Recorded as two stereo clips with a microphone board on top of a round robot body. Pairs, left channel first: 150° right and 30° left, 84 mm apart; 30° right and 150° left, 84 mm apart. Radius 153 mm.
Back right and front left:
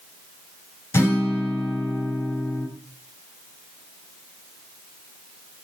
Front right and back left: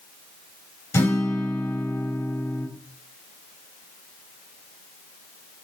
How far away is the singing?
I don't hear singing.